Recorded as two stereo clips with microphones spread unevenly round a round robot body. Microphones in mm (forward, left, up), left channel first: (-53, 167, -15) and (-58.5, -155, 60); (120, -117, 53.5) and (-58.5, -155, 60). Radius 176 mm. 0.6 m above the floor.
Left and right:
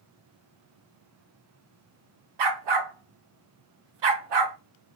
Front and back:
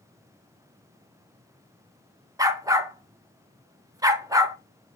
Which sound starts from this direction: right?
A dog barking, at 2.4 s.